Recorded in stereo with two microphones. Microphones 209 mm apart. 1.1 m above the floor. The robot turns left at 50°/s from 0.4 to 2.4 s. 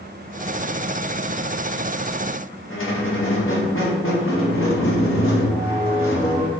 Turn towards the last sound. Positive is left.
turn(degrees=80)